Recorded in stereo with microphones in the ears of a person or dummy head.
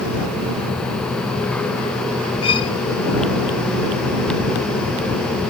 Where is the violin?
35° left (ahead or behind).